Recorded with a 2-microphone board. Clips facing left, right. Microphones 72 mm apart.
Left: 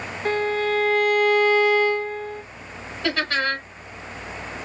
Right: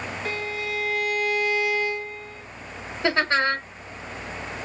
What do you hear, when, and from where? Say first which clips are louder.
0.2 s a violin: left 10 dB; 45° left (ahead or behind), 0.5 m
3.0 s laughter: right 2 dB; 25° right (ahead or behind), 1.2 m